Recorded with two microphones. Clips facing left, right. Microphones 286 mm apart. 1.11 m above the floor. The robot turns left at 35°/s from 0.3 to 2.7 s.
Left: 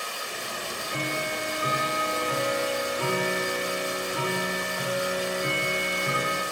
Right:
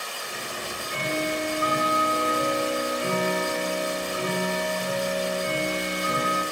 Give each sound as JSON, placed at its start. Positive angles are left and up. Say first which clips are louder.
{"t": 0.6, "sound": "ticking", "louder": "left 1 dB", "azimuth_deg": 155, "distance_m": 8.0}